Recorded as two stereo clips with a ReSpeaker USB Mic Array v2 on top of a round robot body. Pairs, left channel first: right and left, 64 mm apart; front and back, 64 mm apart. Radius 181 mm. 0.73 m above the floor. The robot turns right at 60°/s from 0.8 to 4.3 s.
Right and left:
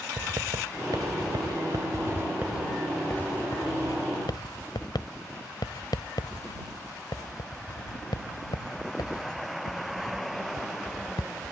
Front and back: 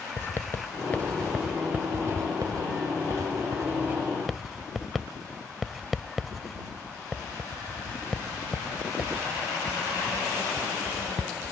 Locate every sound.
0.2 s writing: 60° left; by 11.5 s 90° right